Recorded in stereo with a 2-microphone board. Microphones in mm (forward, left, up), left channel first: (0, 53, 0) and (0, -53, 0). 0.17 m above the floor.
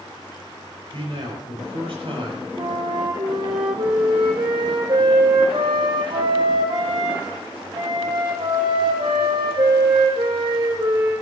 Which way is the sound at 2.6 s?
55° right (ahead or behind).